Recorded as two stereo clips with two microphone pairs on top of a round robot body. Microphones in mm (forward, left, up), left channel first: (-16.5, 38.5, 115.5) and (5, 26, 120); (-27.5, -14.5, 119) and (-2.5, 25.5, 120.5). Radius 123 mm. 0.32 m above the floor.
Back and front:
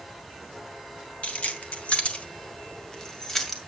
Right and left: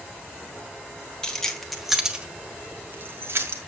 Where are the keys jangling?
165° left, 1.8 m; by 3.6 s 80° left, 2 m.